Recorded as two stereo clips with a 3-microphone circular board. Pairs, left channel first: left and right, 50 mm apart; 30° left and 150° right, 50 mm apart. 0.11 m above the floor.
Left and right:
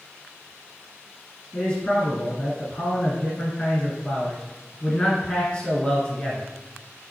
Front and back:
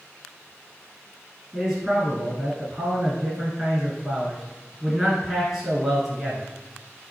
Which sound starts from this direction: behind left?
A man speaking, at 1.5 s.